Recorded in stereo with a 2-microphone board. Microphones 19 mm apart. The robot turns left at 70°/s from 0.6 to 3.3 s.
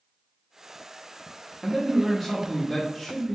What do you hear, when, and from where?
1.6 s a man speaking: 5° right (ahead or behind), 1.0 m; by 3.4 s 25° left (ahead or behind), 1.0 m